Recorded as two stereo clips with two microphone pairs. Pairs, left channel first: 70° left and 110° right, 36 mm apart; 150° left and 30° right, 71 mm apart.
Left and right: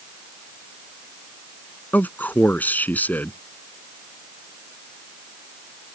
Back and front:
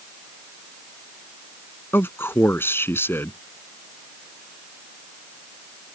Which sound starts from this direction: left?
A man speaking, at 1.9 s.